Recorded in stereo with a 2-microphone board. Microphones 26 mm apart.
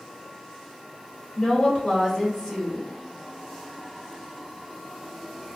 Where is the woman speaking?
40° left (ahead or behind), 1.2 m.